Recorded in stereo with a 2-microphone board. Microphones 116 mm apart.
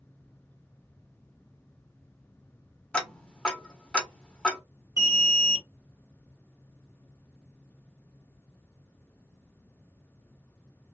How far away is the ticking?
About 1.0 m.